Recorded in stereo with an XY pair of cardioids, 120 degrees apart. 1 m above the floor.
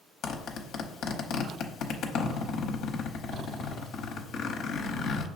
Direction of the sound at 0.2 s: 65° left.